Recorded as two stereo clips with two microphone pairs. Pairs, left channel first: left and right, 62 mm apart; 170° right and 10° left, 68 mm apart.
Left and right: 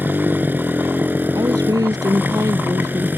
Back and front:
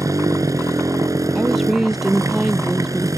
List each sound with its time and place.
0.0 s a motorcycle: 30° right
1.4 s a woman speaking: 75° right